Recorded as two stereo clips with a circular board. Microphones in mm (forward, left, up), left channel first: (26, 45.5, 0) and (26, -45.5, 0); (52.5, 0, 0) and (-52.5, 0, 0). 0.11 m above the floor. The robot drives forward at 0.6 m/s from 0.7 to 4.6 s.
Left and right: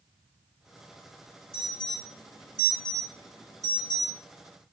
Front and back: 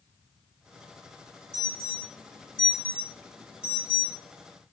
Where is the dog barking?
No dog barking in this recording.